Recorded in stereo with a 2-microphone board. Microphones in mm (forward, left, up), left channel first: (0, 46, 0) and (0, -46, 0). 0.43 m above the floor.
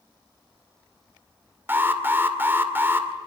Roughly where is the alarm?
Right.